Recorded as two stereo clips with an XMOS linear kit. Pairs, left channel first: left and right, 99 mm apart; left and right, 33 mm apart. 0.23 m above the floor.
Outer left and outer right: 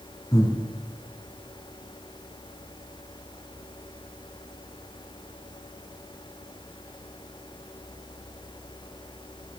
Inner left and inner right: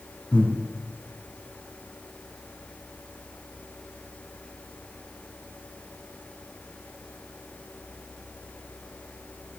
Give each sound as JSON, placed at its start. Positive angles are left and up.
{"t": 0.3, "sound": "breathing", "side_deg": 35, "distance_m": 2.5}